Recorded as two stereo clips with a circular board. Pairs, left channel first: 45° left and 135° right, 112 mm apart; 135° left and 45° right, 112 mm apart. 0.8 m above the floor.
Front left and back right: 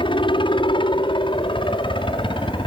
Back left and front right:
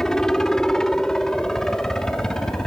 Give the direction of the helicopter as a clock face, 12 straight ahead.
10 o'clock.